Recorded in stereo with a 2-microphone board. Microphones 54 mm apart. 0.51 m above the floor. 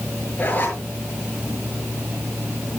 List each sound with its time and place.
0.4 s a zipper: 35° left (ahead or behind), 6 m